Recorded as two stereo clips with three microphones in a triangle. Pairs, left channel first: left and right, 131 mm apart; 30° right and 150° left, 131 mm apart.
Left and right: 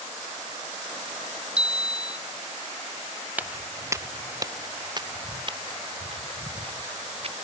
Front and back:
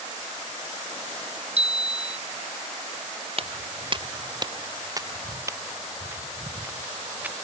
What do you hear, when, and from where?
1.6 s a bicycle bell: 170° right
3.4 s footsteps: 165° right; by 7.3 s 130° right